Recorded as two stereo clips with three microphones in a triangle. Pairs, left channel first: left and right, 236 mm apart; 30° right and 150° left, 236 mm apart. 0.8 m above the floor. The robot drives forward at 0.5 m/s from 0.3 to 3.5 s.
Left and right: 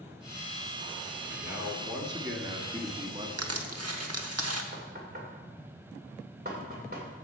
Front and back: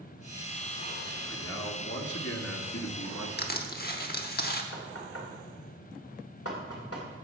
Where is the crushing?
80° right, 1.1 m.